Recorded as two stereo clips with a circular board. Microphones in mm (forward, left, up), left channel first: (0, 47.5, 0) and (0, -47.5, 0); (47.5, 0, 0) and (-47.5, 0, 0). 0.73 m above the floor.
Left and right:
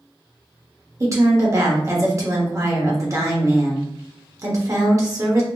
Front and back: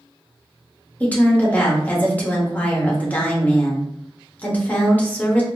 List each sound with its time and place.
1.0 s a woman speaking: 60° right, 1.3 m